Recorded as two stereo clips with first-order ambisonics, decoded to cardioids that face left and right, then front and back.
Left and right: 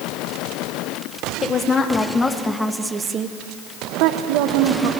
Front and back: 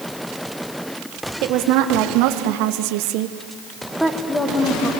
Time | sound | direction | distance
1.4 | a woman speaking | 155° left | 3 m